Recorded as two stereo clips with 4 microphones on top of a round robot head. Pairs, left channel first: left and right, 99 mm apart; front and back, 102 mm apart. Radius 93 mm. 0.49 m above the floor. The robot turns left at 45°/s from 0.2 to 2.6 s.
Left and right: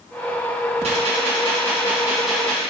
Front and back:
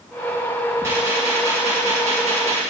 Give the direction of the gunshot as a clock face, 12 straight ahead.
4 o'clock.